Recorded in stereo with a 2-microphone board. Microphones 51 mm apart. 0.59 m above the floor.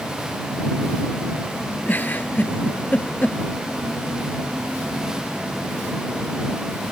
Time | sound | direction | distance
1.9 | a giggle | 35° left (ahead or behind) | ?